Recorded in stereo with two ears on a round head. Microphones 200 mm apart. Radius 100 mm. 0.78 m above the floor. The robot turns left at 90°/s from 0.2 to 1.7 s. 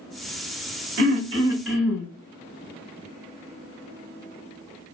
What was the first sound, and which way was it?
Throat clearing, 110° right.